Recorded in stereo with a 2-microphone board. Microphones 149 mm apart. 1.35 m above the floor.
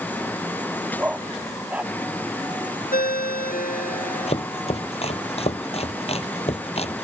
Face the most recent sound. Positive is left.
turn(degrees=45)  # may be behind; listen again after turning